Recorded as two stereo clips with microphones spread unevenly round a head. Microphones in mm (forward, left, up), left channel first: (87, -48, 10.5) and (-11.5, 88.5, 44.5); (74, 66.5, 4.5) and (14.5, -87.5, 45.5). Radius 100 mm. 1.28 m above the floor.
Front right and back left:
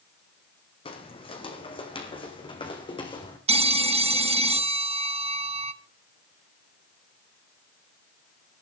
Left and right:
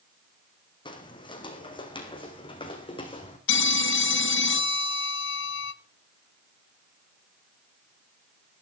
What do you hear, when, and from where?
0.8 s footsteps: 5° left, 4 m; by 3.4 s 10° left, 5 m
3.5 s a phone ringing: 75° left, 1.0 m